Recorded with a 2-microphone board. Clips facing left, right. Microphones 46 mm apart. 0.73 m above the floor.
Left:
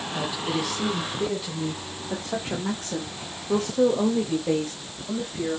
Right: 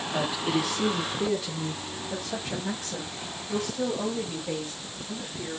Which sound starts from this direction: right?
A woman speaking, at 0.1 s.